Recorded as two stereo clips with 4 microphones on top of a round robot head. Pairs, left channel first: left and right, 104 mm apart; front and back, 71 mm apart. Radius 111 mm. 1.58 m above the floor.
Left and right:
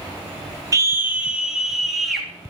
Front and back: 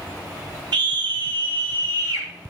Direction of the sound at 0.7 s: 145° right.